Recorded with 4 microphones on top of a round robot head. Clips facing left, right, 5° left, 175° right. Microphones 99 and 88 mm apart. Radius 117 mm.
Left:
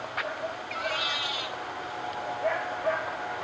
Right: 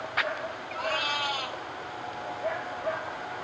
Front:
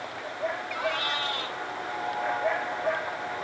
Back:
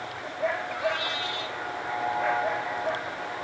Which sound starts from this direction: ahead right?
A cat meowing, at 0.8 s.